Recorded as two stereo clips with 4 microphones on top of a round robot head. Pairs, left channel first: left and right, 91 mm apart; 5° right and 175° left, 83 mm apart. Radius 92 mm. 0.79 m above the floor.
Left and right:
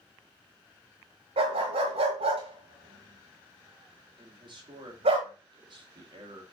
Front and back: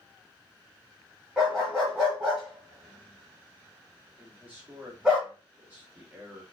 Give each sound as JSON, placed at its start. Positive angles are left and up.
{"t": 1.4, "sound": "a dog barking", "azimuth_deg": -100, "distance_m": 1.4}
{"t": 4.2, "sound": "a man speaking", "azimuth_deg": -115, "distance_m": 2.0}